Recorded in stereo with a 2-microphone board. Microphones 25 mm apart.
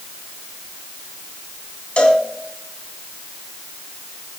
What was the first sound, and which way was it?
A cowbell, 55° left (ahead or behind).